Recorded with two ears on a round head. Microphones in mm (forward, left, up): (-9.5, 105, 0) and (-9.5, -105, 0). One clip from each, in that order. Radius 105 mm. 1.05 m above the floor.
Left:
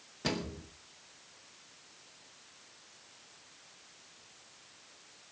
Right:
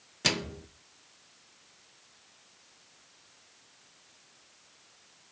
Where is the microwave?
65° right (ahead or behind), 0.8 m.